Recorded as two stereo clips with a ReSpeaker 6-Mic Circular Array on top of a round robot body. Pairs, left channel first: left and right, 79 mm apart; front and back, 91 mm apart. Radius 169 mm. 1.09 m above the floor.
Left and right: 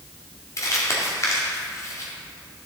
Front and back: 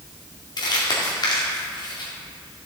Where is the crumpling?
40° left, 2 m.